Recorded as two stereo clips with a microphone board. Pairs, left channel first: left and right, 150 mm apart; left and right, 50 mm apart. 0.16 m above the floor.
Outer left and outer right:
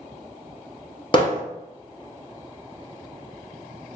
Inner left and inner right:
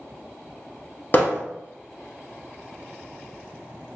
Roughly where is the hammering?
Left.